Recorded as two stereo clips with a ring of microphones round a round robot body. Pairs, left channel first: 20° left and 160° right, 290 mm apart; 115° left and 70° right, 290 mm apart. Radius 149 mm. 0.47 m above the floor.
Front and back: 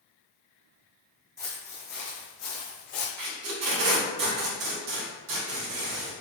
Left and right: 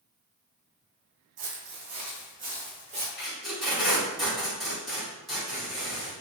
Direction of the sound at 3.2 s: 160° right.